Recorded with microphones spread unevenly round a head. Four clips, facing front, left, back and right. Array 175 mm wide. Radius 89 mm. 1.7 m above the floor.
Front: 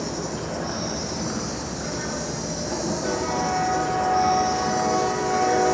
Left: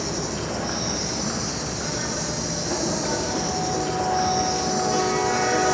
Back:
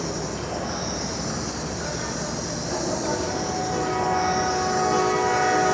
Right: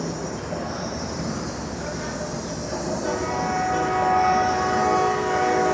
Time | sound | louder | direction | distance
0.0 | an insect | left 1 dB, even | 80° left | 3 m